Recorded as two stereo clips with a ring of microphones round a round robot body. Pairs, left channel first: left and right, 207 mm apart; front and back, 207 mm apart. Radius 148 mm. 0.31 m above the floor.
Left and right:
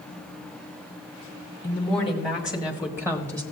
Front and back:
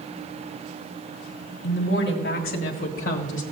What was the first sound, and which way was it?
A woman speaking, 25° left.